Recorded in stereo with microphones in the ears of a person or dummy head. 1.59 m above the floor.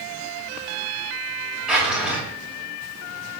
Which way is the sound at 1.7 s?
5° right (ahead or behind).